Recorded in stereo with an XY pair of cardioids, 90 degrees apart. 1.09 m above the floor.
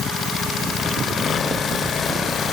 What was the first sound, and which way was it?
Only background noise.